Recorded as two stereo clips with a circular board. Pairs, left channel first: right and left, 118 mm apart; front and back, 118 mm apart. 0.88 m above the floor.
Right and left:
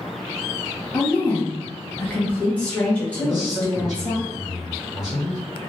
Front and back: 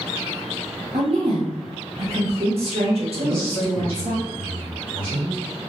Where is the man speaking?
140° left, 1.6 m.